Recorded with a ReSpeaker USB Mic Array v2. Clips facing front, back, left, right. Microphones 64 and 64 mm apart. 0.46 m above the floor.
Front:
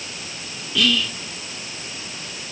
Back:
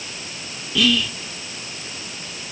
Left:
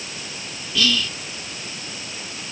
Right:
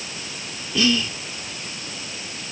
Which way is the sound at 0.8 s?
95° right.